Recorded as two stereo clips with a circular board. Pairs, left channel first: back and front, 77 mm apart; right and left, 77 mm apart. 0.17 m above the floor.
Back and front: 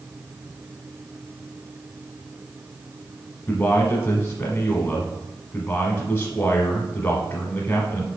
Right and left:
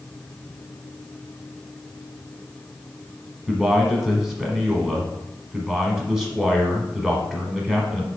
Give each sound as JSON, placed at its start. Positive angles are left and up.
{"t": 3.5, "sound": "a man speaking", "azimuth_deg": 165, "distance_m": 1.1}